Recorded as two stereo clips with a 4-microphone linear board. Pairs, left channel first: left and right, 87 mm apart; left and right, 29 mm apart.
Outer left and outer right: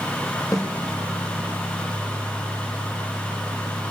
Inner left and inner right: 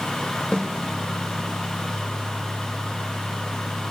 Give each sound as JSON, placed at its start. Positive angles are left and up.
{"t": 0.5, "sound": "a snare drum", "side_deg": 45, "distance_m": 5.5}